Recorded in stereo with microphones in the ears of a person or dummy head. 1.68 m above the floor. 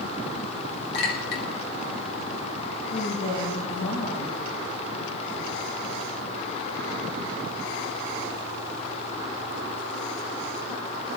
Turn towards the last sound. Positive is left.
turn(degrees=80)